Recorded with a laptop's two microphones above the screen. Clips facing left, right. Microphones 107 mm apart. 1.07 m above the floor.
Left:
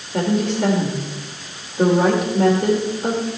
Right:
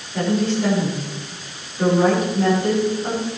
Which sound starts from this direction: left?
A woman speaking, at 0.1 s.